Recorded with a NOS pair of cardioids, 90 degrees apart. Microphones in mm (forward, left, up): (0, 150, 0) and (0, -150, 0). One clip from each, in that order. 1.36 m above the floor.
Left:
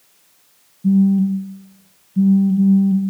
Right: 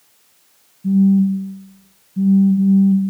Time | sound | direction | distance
0.8 | a phone buzzing | 25° left | 1.0 m